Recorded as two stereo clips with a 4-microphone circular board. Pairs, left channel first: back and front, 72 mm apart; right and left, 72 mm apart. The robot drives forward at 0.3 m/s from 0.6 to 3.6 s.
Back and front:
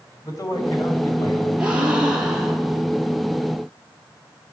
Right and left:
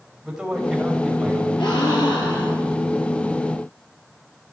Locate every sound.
0.2 s a man speaking: 170° left, 2.5 m; by 1.5 s 175° left, 2.5 m
1.6 s a gasp: 75° right, 2 m; by 2.8 s 85° right, 2.0 m